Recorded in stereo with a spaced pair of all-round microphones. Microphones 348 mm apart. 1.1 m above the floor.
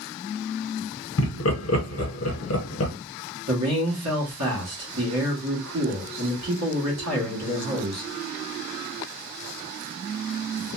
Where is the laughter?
45° left (ahead or behind), 0.7 m.